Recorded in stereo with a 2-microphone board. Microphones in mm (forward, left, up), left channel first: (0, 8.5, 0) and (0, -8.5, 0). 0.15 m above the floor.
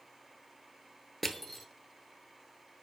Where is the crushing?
10° left (ahead or behind), 0.6 m.